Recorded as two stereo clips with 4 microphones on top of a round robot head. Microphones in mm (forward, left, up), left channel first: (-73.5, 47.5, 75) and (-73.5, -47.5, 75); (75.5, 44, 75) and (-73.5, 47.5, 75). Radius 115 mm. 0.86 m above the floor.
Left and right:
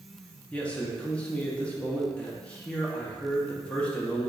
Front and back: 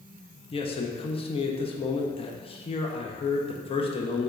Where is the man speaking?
15° left, 0.5 m.